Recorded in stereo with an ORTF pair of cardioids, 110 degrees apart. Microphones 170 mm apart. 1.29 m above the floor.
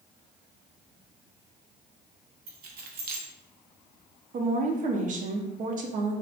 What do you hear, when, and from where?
2.5 s keys jangling: 70° right, 0.7 m
4.3 s a woman speaking: 50° right, 0.7 m